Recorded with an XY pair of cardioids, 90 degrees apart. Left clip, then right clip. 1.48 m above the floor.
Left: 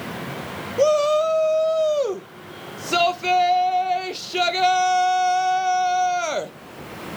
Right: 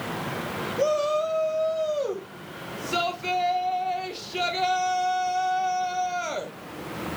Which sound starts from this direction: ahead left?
A shout, at 0.8 s.